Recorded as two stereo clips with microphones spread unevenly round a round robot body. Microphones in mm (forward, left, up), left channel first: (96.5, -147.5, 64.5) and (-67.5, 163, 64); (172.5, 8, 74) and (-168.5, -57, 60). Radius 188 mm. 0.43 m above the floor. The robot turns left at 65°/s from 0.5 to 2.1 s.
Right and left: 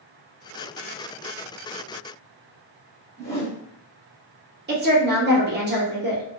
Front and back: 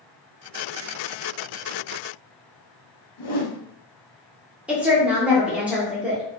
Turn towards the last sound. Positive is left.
turn(degrees=110)